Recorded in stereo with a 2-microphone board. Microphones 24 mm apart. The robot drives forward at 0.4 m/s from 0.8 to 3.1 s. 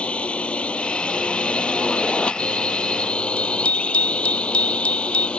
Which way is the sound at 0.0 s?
50° left (ahead or behind).